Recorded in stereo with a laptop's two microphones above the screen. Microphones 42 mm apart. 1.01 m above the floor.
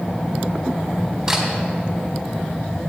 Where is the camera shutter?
10° right (ahead or behind), 3.5 m.